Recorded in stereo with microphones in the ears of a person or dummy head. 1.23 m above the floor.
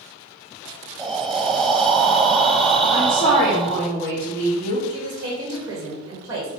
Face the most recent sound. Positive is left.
turn(degrees=-15)  # may be behind; listen again after turning